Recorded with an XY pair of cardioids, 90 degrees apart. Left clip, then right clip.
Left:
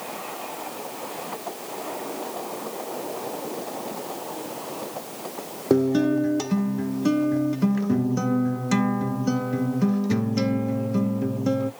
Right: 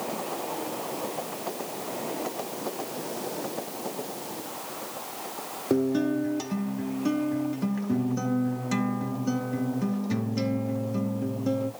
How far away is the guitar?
About 0.5 m.